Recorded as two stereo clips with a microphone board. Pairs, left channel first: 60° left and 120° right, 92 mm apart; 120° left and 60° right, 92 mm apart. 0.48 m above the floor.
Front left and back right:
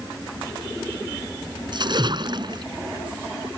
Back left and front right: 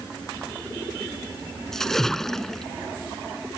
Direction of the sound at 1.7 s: 155° right.